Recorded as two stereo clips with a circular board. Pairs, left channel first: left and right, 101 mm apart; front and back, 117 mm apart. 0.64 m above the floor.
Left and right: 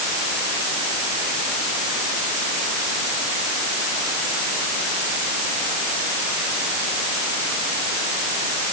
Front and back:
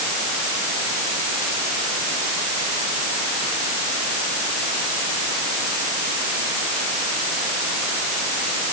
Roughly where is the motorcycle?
No motorcycle in this recording.